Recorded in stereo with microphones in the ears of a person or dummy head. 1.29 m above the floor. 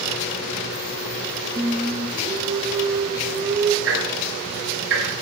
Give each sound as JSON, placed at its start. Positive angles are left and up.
{"t": 1.6, "sound": "singing", "side_deg": -25, "distance_m": 1.0}
{"t": 3.9, "sound": "ticking", "side_deg": -75, "distance_m": 6.5}